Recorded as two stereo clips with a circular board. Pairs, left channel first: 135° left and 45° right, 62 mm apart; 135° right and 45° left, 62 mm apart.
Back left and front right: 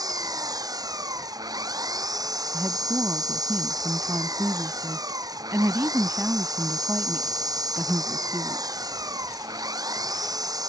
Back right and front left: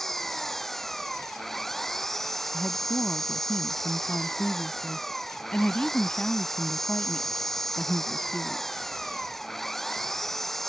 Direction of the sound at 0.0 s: 50° right.